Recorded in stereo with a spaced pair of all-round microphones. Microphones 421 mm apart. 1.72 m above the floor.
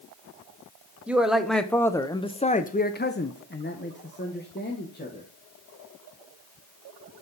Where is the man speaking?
5° right (ahead or behind), 1.0 m; by 5.2 s 25° left (ahead or behind), 1.5 m.